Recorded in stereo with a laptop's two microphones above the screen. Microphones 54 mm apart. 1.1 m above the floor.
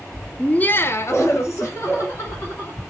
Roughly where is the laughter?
Centre.